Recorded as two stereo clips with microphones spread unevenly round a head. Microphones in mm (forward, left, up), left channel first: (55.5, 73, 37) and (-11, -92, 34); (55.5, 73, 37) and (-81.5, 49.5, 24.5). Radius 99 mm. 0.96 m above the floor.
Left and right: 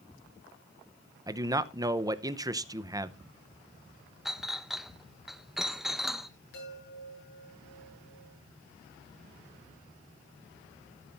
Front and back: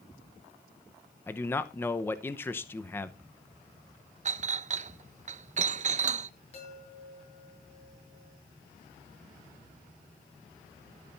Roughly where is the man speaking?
Ahead right.